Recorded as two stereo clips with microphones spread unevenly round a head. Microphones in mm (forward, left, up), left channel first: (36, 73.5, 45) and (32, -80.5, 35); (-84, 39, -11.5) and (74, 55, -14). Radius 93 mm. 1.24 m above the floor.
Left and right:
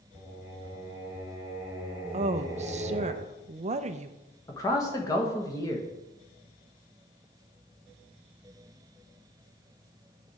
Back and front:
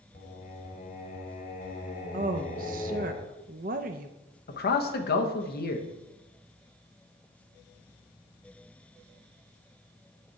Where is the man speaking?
160° left, 1.2 m.